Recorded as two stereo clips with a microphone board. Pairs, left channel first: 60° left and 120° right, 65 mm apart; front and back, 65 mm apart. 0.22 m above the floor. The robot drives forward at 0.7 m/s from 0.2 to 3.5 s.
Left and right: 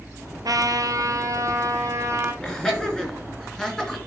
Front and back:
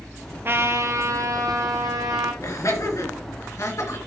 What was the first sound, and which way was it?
A trumpet, 130° right.